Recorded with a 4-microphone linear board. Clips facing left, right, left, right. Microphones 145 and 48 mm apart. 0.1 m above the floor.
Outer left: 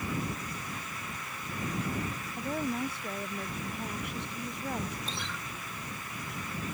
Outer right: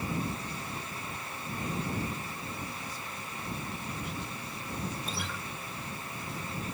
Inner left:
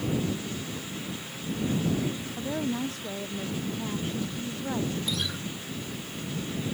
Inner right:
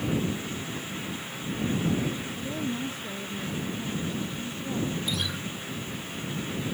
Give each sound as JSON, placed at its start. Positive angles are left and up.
{"t": 2.4, "sound": "a woman speaking", "side_deg": 65}
{"t": 5.1, "sound": "a guitar", "side_deg": -5}